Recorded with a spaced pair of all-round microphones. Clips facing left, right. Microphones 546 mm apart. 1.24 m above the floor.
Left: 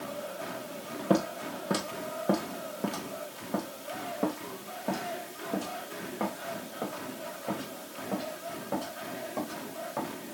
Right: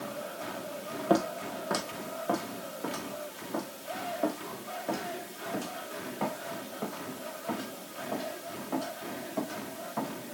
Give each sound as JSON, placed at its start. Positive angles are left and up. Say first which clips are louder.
{"t": 1.1, "sound": "footsteps", "louder": "even", "side_deg": 45, "distance_m": 1.9}